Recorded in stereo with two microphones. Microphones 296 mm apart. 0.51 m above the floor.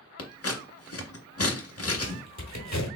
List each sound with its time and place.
0.2 s scissors: 50° left (ahead or behind), 0.7 m
1.9 s a squeak: 65° left (ahead or behind), 1.2 m